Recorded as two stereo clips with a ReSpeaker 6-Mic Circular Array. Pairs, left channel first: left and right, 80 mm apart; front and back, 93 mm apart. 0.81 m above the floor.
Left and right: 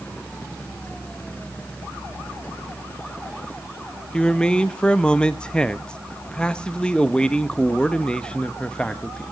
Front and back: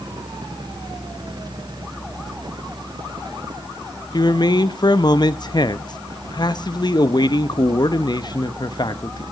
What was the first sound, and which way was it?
A man speaking, 15° left.